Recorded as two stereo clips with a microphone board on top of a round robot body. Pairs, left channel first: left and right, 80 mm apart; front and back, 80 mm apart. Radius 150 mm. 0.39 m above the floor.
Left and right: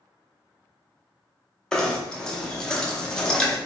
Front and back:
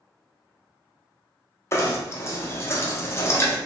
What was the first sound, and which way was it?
Knocking, 15° left.